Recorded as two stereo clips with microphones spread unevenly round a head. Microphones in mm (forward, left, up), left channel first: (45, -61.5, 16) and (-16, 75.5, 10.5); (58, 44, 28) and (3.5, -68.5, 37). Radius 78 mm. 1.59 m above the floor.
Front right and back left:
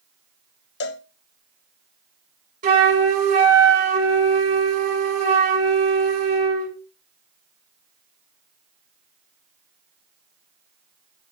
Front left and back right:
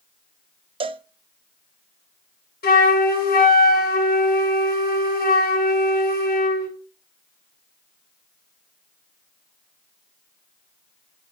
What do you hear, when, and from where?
0.8 s a cowbell: 70° right, 0.6 m
2.6 s a flute: 75° left, 3 m